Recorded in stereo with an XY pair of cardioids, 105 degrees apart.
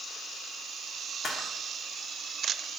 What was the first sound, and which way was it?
A camera shutter, 40° left.